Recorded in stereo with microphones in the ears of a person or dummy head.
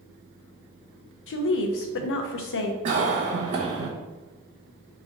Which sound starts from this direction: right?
A cough, at 2.9 s.